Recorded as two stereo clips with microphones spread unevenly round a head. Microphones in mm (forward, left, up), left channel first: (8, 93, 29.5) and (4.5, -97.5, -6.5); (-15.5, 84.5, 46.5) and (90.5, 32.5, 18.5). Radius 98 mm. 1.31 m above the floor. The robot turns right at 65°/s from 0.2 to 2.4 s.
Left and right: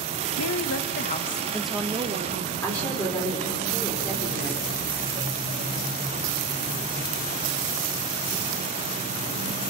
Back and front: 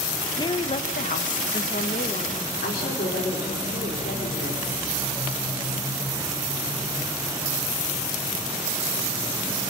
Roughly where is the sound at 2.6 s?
Behind.